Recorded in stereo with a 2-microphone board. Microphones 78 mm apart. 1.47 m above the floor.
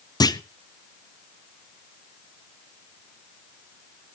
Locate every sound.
0.2 s a clunk: 55° left (ahead or behind), 0.5 m